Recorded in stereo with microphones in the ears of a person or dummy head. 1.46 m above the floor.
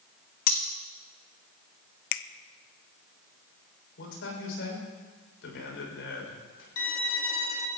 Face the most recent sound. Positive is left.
turn(degrees=80)